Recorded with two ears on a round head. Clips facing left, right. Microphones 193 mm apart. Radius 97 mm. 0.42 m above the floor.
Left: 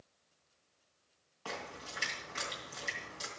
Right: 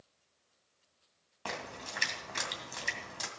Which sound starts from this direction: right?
A splash, at 1.4 s.